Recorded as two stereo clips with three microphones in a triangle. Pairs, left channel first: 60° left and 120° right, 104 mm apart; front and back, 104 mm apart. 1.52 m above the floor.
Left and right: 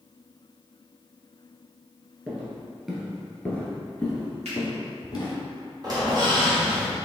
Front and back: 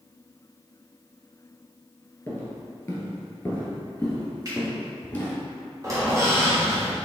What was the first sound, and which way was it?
Footsteps, 55° right.